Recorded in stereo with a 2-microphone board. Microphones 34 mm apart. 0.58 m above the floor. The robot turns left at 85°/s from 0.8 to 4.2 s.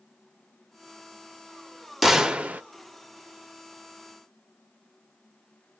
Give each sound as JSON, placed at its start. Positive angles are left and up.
{"t": 2.0, "sound": "a gunshot", "azimuth_deg": 0, "distance_m": 0.5}